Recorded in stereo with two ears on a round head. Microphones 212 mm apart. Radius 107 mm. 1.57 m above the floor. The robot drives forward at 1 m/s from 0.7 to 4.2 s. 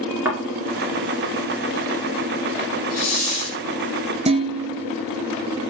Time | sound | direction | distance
0.2 | a thud | 10° right (ahead or behind) | 2 m
2.9 | a hiss | 30° left (ahead or behind) | 2.0 m
4.3 | dishes clattering | 25° right (ahead or behind) | 0.9 m